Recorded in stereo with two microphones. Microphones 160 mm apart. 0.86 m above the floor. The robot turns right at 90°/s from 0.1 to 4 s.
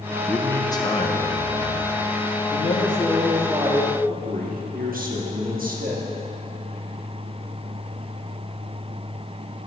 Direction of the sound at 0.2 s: Straight ahead.